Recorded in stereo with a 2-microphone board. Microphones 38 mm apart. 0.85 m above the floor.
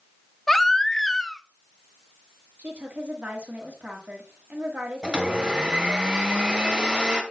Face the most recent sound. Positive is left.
turn(degrees=-25)  # may be behind; listen again after turning